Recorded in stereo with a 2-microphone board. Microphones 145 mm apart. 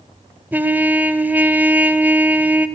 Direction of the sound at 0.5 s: 15° right (ahead or behind).